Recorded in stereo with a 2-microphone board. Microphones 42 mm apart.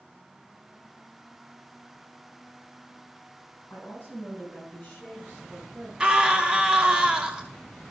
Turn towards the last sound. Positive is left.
turn(degrees=-25)  # may be behind; listen again after turning